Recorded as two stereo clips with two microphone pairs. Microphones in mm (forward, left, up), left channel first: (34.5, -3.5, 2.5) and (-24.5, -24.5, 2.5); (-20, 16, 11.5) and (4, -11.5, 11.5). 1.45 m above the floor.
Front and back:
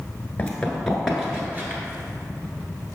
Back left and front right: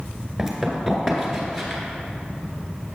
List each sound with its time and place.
0.4 s running footsteps: 30° left, 1.4 m; by 1.8 s 145° right, 1.6 m